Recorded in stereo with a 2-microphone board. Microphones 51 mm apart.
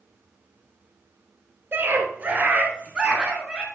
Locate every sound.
1.7 s a scream: 40° right (ahead or behind), 2 m; by 3.6 s 10° left (ahead or behind), 2 m